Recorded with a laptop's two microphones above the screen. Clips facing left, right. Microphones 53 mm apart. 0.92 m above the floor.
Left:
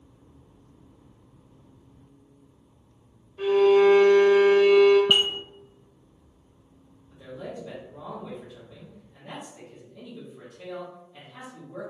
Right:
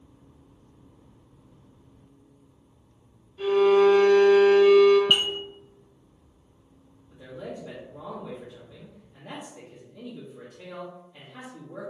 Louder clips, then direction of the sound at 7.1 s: Even; 10° right (ahead or behind).